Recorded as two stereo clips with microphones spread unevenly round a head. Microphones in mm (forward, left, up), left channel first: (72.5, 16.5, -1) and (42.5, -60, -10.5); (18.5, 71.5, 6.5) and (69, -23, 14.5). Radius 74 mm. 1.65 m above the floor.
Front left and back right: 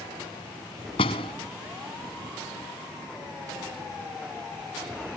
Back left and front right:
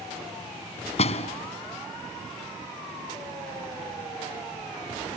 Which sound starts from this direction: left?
A door slam, at 1.0 s.